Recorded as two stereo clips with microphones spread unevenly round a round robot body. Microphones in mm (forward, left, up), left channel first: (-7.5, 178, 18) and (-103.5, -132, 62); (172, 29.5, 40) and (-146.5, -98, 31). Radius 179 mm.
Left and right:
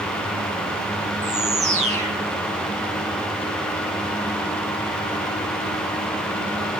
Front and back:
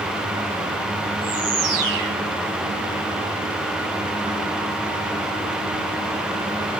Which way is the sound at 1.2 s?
Straight behind.